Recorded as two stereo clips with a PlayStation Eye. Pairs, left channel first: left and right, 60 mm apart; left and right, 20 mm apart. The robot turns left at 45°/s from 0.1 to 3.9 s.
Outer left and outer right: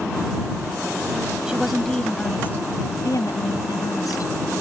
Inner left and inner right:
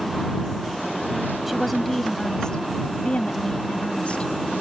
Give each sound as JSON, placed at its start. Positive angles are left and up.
{"t": 1.5, "sound": "a woman speaking", "azimuth_deg": -165}